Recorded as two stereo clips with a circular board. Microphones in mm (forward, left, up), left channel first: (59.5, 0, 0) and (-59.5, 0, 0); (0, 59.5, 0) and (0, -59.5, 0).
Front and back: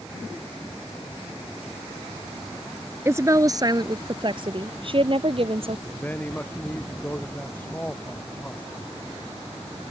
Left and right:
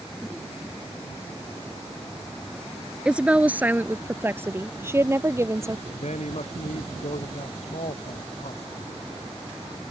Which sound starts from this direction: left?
A man speaking, at 5.9 s.